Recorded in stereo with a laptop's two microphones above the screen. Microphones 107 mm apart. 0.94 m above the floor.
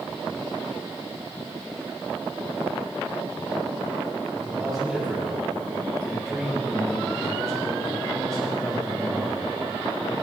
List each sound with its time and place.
4.3 s a man speaking: 5° left (ahead or behind), 4.5 m